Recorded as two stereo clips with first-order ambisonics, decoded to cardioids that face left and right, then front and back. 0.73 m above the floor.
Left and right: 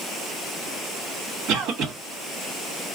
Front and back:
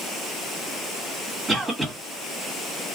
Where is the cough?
100° right, 1.4 m.